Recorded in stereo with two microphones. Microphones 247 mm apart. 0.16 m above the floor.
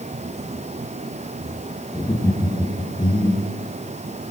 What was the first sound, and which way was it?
Laughter, 10° left (ahead or behind).